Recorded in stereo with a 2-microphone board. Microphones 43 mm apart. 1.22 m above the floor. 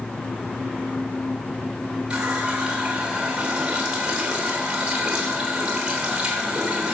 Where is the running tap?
20° right (ahead or behind), 3 m.